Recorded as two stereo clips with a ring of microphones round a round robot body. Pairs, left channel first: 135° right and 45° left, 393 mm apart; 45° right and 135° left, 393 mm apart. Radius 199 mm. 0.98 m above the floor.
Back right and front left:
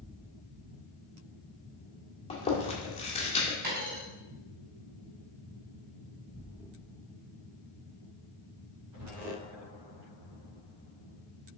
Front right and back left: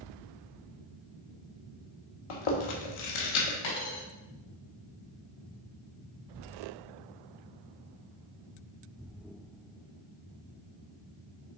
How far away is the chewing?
About 1.3 m.